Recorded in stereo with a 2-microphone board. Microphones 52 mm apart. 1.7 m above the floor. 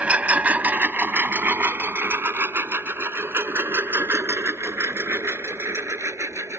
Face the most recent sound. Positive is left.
turn(degrees=-60)  # may be behind; listen again after turning